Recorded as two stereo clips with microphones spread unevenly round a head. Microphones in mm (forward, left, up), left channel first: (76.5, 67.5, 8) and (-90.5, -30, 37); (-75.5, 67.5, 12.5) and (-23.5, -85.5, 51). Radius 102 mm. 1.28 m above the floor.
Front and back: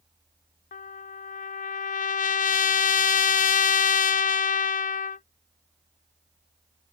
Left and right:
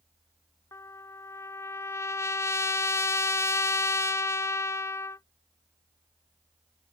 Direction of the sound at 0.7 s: 50° left.